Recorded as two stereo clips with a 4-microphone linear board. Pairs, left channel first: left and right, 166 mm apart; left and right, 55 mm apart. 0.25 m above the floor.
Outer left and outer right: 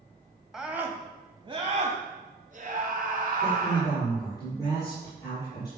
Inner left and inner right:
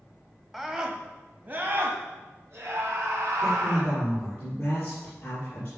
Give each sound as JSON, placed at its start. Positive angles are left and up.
{"t": 0.5, "sound": "a scream", "side_deg": -5, "distance_m": 1.5}
{"t": 3.4, "sound": "a man speaking", "side_deg": 25, "distance_m": 7.5}